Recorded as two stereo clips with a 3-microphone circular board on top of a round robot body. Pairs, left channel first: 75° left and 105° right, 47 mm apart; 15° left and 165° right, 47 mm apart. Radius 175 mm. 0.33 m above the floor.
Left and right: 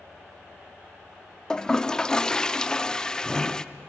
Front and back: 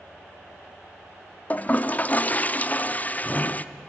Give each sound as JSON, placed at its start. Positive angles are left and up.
{"t": 1.5, "sound": "a toilet flushing", "azimuth_deg": 10, "distance_m": 0.8}